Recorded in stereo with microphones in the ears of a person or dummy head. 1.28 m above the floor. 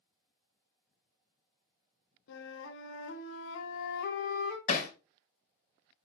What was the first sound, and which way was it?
A flute, 70° left (ahead or behind).